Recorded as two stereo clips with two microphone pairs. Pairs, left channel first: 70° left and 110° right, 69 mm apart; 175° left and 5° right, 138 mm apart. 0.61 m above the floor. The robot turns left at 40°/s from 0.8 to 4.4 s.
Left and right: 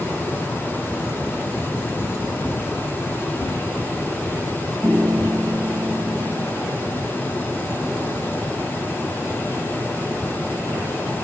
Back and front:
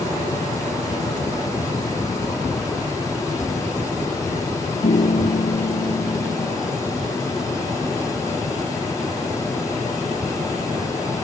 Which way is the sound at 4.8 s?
165° right.